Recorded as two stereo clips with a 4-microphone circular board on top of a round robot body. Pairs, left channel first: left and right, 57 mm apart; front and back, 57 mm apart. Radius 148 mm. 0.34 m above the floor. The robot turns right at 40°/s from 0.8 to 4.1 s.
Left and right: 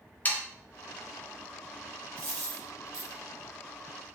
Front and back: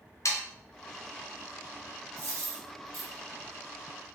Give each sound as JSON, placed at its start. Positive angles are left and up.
{"t": 0.2, "sound": "sawing", "azimuth_deg": 30, "distance_m": 0.7}
{"t": 2.2, "sound": "a dropped coin", "azimuth_deg": 160, "distance_m": 1.2}